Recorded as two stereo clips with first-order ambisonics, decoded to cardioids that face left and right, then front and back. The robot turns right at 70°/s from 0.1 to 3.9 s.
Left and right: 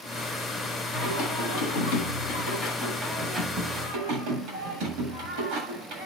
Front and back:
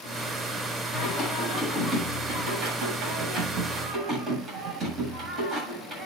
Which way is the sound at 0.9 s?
25° left.